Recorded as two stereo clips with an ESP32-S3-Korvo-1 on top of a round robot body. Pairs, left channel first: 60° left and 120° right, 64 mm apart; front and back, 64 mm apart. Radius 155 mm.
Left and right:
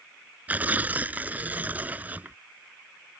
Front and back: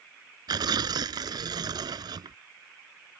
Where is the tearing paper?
170° left.